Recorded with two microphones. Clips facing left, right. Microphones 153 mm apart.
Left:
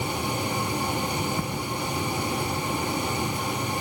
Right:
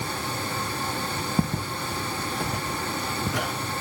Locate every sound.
1.4 s footsteps: 35° right (ahead or behind), 1.5 m; by 3.5 s 85° right, 3 m